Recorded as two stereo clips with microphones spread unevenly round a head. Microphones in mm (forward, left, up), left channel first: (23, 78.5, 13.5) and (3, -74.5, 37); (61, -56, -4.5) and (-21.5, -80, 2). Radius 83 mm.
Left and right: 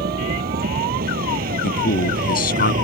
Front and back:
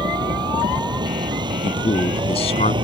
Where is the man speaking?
50° left.